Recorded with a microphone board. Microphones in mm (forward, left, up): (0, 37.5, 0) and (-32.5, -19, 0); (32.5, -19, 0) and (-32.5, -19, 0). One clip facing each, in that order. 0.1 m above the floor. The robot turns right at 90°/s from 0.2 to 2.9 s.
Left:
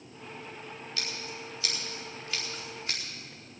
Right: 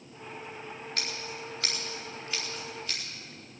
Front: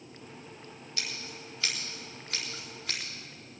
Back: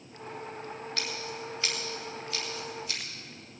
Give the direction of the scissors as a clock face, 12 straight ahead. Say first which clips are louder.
Right 1 dB, back 2 dB; 6 o'clock.